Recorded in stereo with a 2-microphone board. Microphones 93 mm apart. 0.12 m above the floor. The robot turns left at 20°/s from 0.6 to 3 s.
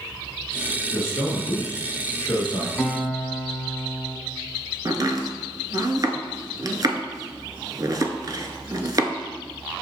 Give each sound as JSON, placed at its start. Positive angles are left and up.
{"t": 0.9, "sound": "a man speaking", "azimuth_deg": 130, "distance_m": 1.4}
{"t": 2.8, "sound": "a guitar", "side_deg": 15, "distance_m": 1.1}
{"t": 4.8, "sound": "chopping", "side_deg": -45, "distance_m": 0.6}